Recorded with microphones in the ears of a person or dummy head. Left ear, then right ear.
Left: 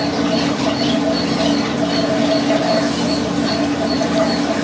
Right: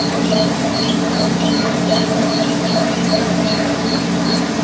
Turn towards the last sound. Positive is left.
turn(degrees=-55)  # may be behind; listen again after turning